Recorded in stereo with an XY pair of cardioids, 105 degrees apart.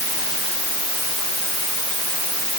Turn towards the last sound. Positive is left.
No sound to turn to.